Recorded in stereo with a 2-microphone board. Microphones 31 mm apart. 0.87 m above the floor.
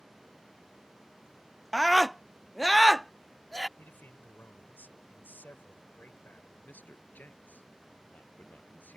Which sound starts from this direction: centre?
A scream, at 1.7 s.